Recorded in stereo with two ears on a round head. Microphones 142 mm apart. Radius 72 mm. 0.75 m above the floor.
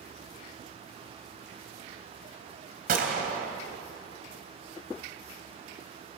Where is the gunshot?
55° right (ahead or behind), 3.5 m.